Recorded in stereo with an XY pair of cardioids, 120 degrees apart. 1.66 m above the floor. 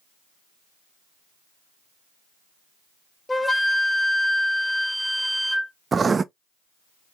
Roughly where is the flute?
Ahead.